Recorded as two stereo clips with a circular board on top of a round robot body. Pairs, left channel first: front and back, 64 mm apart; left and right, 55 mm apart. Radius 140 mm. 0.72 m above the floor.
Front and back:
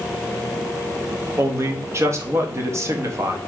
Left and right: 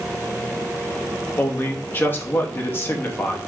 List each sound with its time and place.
1.4 s a man speaking: 140° left, 1.3 m